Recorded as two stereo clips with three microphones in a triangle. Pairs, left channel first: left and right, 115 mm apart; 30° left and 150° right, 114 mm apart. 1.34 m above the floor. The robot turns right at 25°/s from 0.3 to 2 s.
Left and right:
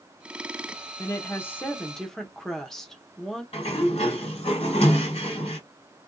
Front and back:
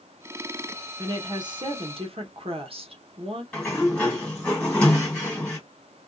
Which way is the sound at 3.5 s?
110° left.